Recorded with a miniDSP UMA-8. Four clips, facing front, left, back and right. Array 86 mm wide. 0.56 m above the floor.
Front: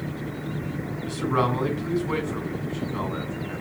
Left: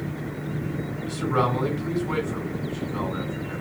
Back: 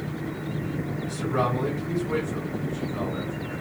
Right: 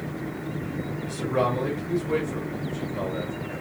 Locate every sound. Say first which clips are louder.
1.0 s a man speaking: left 1 dB, front 3 dB; 35° left, 4 m